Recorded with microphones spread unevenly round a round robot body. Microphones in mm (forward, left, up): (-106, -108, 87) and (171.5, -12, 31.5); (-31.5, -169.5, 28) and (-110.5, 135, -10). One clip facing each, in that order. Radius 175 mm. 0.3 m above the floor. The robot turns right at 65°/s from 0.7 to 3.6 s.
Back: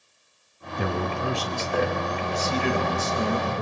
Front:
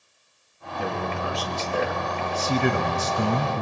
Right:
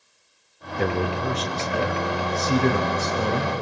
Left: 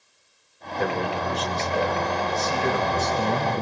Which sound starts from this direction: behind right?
A man speaking, at 0.8 s.